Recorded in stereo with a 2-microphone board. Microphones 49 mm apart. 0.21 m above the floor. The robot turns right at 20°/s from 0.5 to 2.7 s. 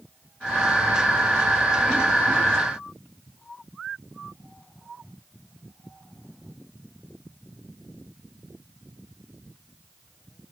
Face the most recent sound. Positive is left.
No sound to turn to.